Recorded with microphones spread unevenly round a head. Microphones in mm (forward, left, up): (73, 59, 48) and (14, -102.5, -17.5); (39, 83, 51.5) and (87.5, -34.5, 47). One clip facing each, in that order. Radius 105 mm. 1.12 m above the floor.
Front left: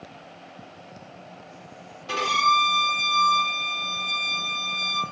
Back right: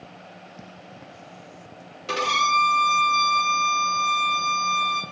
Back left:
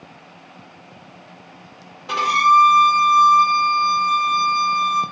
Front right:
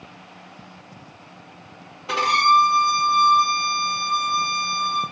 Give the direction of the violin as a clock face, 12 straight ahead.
5 o'clock.